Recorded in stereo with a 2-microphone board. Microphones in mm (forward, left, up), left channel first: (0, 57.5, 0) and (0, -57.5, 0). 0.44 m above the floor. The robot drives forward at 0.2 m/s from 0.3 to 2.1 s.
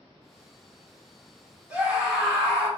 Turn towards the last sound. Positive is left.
turn(degrees=-10)  # may be behind; listen again after turning